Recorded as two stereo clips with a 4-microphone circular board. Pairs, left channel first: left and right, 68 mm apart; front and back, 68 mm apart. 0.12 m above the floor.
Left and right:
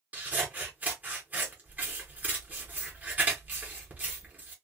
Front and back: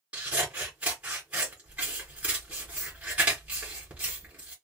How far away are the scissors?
About 1.3 m.